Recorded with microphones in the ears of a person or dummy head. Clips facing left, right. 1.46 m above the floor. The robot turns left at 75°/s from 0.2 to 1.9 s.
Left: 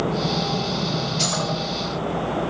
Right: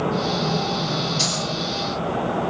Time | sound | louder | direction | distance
1.2 | a dropped coin | left 1 dB | 10° right (ahead or behind) | 1.8 m